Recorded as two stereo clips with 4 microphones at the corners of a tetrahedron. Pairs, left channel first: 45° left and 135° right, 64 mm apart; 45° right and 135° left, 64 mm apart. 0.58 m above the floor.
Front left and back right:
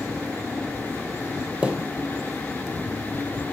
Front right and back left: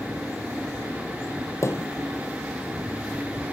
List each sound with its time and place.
1.6 s a thud: 65° right, 0.9 m